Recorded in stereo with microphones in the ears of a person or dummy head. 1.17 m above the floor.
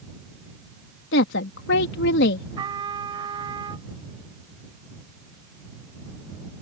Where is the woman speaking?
75° left (ahead or behind).